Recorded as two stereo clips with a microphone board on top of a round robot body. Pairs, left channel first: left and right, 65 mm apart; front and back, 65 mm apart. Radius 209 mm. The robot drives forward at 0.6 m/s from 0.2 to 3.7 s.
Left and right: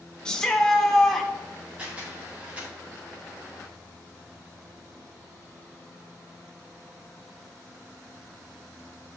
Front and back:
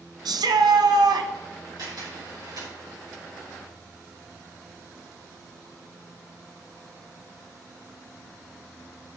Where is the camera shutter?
165° right, 5.5 m.